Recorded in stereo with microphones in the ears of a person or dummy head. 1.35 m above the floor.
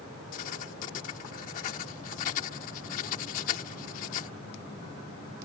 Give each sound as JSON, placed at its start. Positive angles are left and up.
{"t": 0.3, "sound": "writing", "side_deg": 45}